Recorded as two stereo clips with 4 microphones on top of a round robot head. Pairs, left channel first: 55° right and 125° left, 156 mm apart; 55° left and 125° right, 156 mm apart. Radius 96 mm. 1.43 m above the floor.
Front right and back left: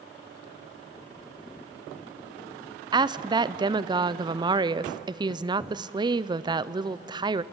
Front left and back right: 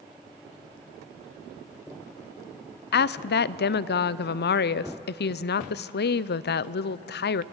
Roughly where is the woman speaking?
Ahead left.